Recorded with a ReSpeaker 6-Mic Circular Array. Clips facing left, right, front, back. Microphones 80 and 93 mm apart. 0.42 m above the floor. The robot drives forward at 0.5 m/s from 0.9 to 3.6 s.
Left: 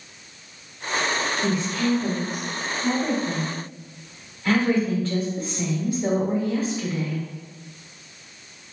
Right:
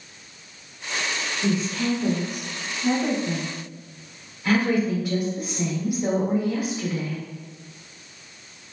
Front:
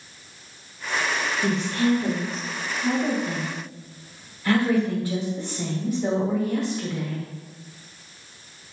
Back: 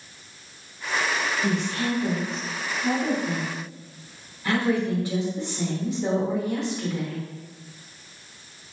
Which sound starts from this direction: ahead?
A woman speaking, at 1.4 s.